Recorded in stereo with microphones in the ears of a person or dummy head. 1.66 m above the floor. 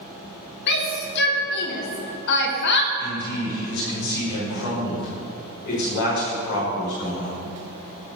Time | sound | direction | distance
0.7 | a shout | 60° left (ahead or behind) | 3 m
3.0 | a man speaking | 65° left (ahead or behind) | 5.5 m